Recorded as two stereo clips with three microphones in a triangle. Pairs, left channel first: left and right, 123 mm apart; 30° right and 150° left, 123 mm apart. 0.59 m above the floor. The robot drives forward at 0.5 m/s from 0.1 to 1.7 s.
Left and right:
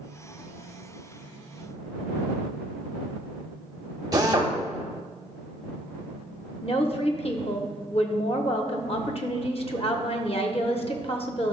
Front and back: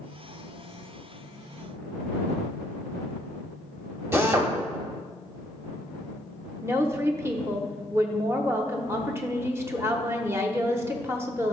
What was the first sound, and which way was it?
A drill, 145° right.